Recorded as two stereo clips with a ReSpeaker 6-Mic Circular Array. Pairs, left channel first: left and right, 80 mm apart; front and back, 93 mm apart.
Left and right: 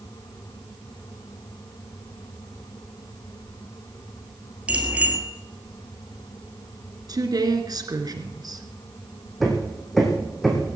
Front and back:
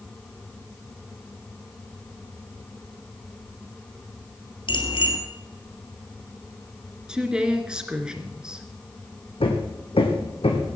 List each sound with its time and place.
4.7 s a bicycle bell: 15° right, 2.5 m
7.1 s a woman speaking: 100° right, 2 m
9.4 s hammering: straight ahead, 3 m